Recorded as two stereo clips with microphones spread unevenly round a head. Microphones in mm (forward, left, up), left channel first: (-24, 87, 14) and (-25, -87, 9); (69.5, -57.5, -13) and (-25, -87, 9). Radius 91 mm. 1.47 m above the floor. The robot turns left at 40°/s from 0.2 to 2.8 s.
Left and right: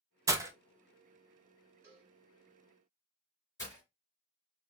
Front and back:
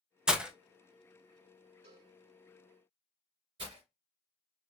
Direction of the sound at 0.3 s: 135° right.